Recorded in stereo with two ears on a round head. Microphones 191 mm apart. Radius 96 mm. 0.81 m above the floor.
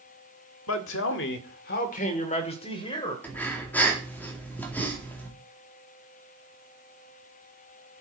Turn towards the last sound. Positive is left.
turn(degrees=10)  # may be behind; listen again after turning